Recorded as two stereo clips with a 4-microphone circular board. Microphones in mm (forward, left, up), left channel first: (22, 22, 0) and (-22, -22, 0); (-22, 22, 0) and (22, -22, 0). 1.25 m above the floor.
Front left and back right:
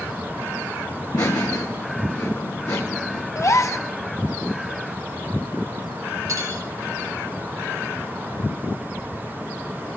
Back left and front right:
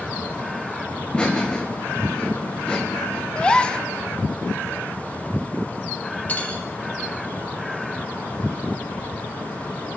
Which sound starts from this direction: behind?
Cutlery clinking, at 6.3 s.